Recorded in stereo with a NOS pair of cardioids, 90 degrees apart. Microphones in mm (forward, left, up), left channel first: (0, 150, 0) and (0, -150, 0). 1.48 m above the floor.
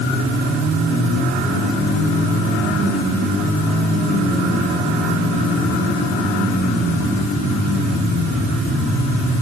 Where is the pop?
No pop in this recording.